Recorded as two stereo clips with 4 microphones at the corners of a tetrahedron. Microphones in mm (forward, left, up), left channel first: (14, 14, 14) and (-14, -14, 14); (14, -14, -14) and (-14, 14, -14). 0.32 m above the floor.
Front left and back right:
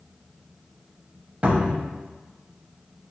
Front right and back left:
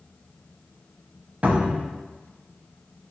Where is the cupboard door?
Straight behind, 0.5 m.